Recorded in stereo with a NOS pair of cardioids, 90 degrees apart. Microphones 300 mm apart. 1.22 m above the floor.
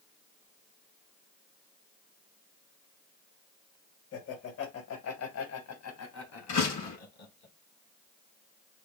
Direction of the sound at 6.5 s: 65° left.